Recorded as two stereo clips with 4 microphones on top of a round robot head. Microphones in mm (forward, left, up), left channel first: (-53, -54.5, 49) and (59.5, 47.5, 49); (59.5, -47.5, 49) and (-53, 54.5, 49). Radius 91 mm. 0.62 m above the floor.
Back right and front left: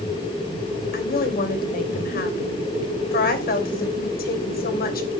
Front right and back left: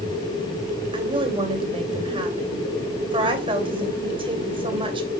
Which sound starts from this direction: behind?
A woman speaking, at 0.9 s.